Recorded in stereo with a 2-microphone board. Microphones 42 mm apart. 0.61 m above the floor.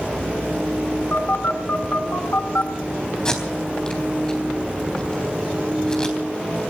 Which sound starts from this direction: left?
A phone buzzing, at 1.1 s.